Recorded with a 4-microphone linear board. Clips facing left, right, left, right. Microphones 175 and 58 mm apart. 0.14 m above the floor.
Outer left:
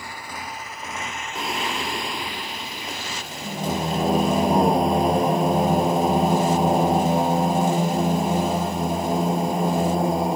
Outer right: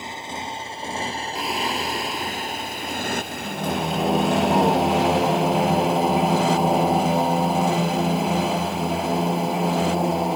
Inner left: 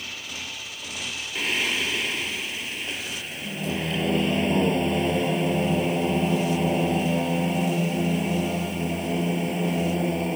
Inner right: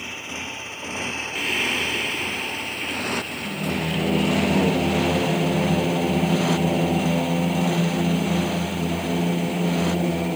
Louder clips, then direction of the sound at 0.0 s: Outer right 3 dB, inner right 4 dB; 20° right (ahead or behind).